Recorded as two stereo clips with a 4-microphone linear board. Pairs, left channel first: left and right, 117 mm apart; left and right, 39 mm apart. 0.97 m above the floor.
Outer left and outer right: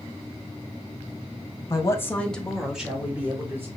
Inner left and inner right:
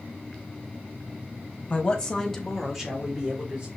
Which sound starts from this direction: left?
A woman speaking, at 1.7 s.